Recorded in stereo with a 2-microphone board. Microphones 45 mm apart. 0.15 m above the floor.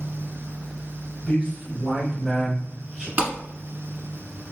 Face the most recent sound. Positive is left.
turn(degrees=-40)  # may be behind; listen again after turning